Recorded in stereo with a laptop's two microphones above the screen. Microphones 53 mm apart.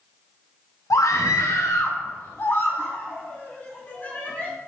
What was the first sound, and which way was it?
A scream, 80° left.